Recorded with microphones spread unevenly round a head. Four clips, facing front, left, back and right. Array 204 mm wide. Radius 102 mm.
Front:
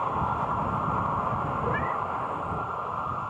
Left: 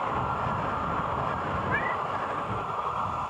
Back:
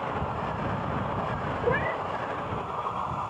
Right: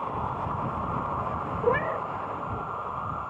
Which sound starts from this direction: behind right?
A cat meowing, at 1.6 s.